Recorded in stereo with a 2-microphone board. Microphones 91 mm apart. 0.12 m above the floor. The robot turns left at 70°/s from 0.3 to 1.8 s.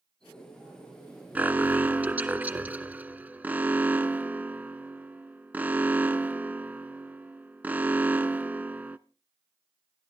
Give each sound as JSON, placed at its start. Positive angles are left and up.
{"t": 1.4, "sound": "an alarm", "side_deg": -15, "distance_m": 0.8}